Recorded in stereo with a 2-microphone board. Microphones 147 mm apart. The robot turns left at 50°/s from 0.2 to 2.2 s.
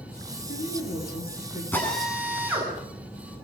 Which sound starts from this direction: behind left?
A woman speaking, at 0.3 s.